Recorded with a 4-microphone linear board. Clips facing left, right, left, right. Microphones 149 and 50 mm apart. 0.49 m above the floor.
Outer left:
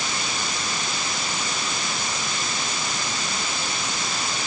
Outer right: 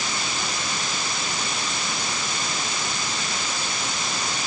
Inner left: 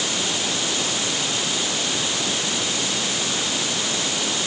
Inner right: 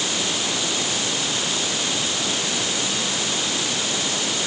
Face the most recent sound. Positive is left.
No sound to turn to.